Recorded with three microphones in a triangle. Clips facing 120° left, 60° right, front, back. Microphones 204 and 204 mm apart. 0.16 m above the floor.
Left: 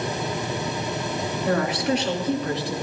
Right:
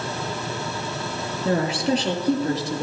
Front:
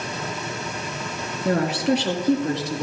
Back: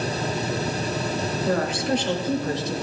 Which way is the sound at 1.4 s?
5° left.